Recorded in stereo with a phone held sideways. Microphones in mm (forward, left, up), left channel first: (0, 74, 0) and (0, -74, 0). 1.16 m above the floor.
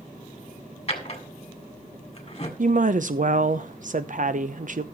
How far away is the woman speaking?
About 0.8 m.